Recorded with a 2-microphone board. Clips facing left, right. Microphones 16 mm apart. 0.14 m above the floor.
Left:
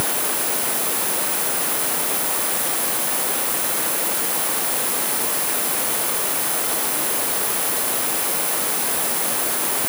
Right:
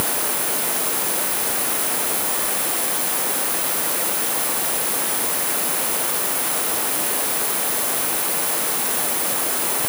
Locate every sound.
Only background noise.